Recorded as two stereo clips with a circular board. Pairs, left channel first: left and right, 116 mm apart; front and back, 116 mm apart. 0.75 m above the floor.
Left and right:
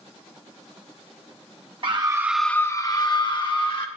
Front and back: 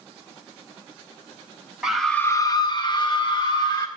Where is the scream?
100° right, 0.7 m; by 3.9 s 50° left, 1.7 m.